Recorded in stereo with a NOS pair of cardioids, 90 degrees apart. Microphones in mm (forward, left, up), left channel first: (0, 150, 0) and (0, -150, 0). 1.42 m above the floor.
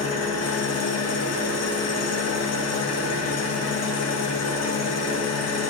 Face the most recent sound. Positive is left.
turn(degrees=55)